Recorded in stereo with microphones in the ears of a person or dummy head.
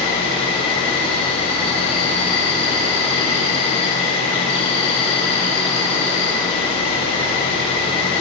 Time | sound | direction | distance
0.0 | an insect | 35° left (ahead or behind) | 1.5 m